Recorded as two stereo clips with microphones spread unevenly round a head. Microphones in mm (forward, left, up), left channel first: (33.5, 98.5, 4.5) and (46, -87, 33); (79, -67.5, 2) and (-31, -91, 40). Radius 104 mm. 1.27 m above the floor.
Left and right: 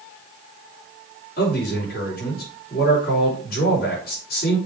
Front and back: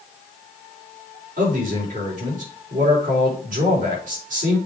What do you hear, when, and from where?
1.4 s a man speaking: 140° left, 3.5 m